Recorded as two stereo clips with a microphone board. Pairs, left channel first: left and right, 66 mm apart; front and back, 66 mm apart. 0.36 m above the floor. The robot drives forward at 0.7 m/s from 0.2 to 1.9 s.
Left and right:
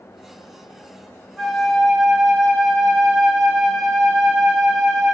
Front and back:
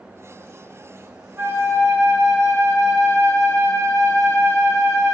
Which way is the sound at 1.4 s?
175° left.